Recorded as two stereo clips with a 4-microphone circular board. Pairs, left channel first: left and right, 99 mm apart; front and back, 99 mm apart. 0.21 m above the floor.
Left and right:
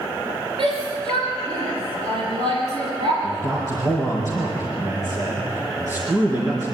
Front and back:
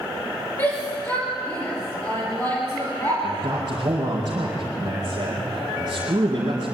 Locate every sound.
0.6 s a shout: 65° right, 5 m
3.2 s a man speaking: 145° right, 4 m